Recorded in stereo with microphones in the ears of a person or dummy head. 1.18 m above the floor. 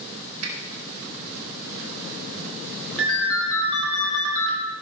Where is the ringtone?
Centre (ahead or behind), 4.5 m.